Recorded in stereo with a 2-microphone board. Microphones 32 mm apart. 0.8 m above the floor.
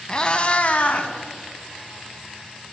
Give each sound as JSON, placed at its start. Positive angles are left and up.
{"t": 0.1, "sound": "a cat meowing", "side_deg": 25, "distance_m": 0.9}